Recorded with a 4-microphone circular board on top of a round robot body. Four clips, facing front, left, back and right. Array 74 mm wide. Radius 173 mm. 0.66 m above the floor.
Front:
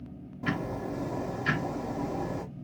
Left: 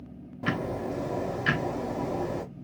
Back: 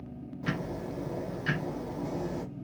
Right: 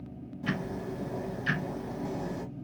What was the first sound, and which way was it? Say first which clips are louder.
Ticking: left 4 dB, front 3 dB; 80° left.